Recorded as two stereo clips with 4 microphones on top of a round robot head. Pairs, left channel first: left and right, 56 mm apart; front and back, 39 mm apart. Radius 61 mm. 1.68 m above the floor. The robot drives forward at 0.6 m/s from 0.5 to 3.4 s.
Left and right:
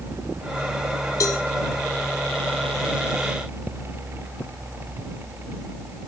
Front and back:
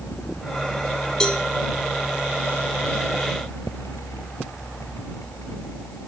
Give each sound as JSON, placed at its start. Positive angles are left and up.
{"t": 1.2, "sound": "a cowbell", "azimuth_deg": 65, "distance_m": 1.7}